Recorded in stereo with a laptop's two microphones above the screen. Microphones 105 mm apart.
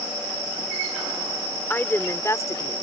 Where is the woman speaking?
20° left (ahead or behind); by 2.8 s 40° left (ahead or behind).